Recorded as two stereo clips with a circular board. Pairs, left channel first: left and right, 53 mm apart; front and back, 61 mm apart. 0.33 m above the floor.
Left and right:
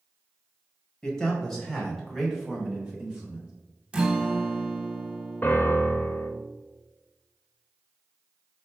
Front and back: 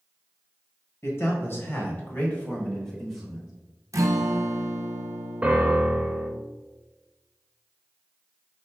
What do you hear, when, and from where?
1.0 s a man speaking: 10° left, 1.6 m; by 3.5 s 110° right, 1.2 m
3.9 s a guitar: 160° right, 0.6 m
5.4 s a piano: 125° left, 0.5 m